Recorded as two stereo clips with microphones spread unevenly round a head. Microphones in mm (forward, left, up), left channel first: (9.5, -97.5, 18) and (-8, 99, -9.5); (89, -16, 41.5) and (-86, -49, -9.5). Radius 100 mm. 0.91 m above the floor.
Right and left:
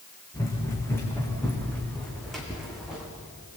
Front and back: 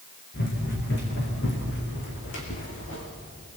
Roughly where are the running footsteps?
Ahead.